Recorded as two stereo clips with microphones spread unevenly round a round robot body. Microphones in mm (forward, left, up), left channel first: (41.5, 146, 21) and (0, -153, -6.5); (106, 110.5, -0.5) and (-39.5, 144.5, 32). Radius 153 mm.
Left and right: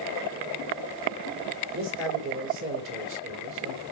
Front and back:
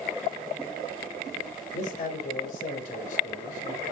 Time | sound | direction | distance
1.7 | a man speaking | 70° right | 2 m